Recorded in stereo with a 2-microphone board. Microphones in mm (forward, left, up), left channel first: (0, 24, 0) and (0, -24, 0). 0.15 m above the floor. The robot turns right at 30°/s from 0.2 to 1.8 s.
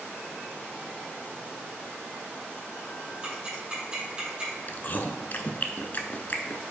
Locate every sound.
3.2 s ticking: 20° right (ahead or behind), 3 m
4.7 s chewing: 45° left (ahead or behind), 0.7 m